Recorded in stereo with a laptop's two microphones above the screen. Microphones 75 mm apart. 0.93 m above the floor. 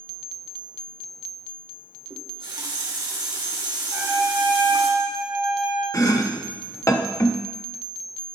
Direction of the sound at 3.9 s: 25° right (ahead or behind).